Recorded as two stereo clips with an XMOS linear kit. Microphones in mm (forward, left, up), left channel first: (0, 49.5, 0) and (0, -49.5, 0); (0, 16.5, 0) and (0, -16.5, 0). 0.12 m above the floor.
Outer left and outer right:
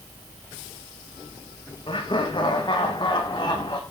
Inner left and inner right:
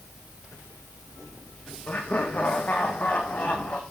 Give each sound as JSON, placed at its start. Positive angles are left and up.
{"t": 1.9, "sound": "laughter", "side_deg": 55, "distance_m": 7.0}